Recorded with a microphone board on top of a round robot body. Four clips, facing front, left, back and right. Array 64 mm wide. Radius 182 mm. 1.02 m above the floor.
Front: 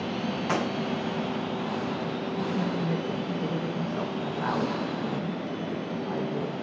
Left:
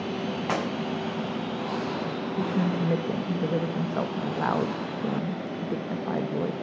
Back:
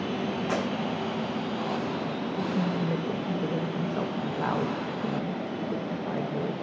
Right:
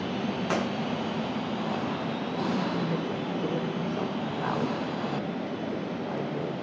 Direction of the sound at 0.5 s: 80° left.